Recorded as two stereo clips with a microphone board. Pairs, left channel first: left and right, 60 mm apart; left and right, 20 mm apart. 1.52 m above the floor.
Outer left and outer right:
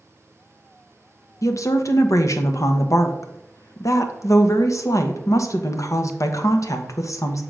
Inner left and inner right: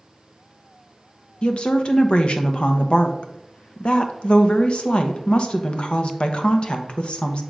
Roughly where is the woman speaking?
Left.